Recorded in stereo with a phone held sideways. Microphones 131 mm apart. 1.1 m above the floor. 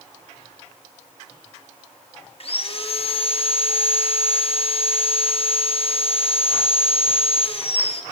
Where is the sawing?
50° left (ahead or behind), 0.6 m.